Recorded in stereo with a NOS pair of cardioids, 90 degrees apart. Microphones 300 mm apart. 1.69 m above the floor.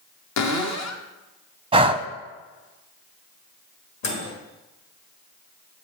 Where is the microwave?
65° left, 2 m.